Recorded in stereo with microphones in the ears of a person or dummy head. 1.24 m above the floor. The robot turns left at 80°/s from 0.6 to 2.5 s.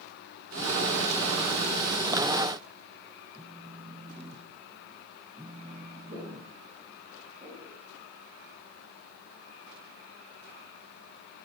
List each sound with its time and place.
3.4 s a phone buzzing: 10° right (ahead or behind), 1.0 m
6.1 s footsteps: 30° right (ahead or behind), 6.5 m; by 7.8 s 25° right (ahead or behind), 6.5 m